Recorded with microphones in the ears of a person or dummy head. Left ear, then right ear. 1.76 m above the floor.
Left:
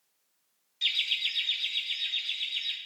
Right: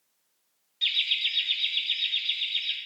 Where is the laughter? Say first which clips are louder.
Right 3 dB; 10° left (ahead or behind), 0.9 m; by 2.8 s centre (ahead or behind), 3 m.